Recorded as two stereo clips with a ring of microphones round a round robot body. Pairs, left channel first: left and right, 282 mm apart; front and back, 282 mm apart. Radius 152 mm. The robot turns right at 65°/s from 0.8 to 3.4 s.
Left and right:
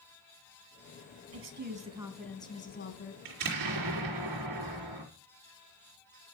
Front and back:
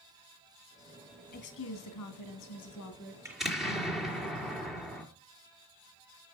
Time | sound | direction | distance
1.3 | a woman speaking | 55° right | 2.5 m
3.2 | an explosion | 100° right | 4.5 m